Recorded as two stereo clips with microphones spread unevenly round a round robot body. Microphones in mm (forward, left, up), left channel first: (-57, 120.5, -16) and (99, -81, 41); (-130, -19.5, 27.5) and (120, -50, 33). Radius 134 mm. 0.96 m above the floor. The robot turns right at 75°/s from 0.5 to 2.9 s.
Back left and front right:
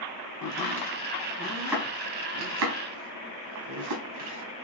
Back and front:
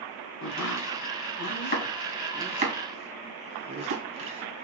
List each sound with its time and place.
0.4 s chopping: 135° left, 3 m; by 4.7 s 45° right, 3 m